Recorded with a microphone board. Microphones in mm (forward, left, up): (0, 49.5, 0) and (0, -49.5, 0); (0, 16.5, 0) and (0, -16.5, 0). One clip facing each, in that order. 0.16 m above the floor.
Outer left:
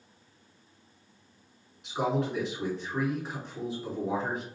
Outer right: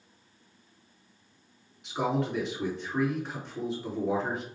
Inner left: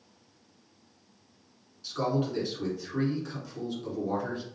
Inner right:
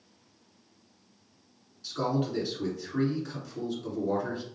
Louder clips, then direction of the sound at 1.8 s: Even, even; centre (ahead or behind).